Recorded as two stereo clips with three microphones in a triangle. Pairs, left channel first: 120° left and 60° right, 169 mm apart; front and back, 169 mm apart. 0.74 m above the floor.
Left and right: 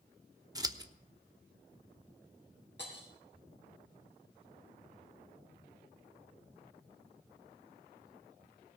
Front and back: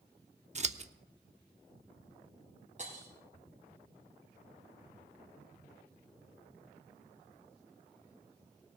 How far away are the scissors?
About 0.7 m.